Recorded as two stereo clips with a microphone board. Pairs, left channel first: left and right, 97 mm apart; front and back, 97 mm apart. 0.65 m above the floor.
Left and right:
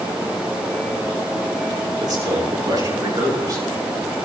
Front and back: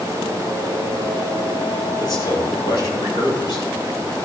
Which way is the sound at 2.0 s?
40° right.